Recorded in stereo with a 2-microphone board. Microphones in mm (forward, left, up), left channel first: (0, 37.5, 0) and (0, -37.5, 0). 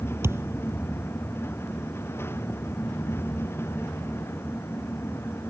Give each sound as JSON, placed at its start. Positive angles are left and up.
{"t": 0.2, "sound": "a thud", "side_deg": -35}